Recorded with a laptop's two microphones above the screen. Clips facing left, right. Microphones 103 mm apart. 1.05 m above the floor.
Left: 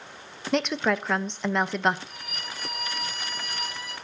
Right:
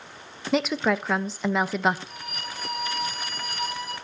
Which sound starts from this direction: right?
A violin, at 2.1 s.